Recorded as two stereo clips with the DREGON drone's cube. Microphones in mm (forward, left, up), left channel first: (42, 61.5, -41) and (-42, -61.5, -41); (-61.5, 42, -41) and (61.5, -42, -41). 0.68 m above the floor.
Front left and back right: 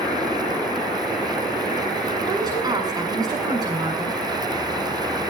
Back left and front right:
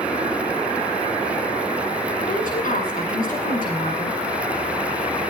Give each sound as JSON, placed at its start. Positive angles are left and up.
{"t": 2.3, "sound": "a woman speaking", "azimuth_deg": 170, "distance_m": 7.0}